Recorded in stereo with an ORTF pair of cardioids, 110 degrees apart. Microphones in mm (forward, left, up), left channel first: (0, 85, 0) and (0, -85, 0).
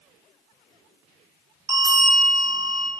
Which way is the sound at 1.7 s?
15° right.